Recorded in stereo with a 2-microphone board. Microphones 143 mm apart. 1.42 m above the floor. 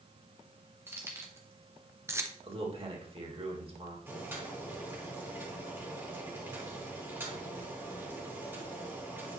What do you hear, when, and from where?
0.9 s keys jangling: 20° right (ahead or behind), 1.6 m
2.4 s a man speaking: 40° right (ahead or behind), 1.9 m
4.1 s boiling: 15° right (ahead or behind), 2.5 m